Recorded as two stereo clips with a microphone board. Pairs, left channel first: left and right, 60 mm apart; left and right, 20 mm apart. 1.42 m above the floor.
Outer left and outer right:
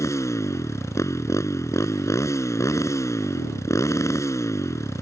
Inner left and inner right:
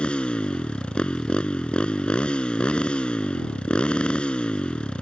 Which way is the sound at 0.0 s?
55° left (ahead or behind).